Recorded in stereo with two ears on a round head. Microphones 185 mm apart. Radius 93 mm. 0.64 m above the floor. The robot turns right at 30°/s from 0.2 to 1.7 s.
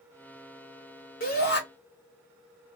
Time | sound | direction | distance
1.2 | a shout | 45° left (ahead or behind) | 1.9 m